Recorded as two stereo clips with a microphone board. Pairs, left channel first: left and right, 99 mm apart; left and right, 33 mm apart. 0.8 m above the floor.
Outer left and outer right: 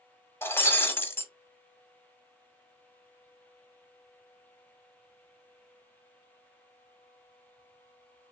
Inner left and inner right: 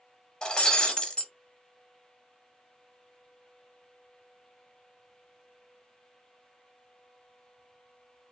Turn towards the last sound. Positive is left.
turn(degrees=25)  # may be behind; listen again after turning